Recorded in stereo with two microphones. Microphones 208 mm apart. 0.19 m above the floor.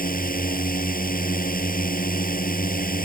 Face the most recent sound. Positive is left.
turn(degrees=45)  # may be behind; listen again after turning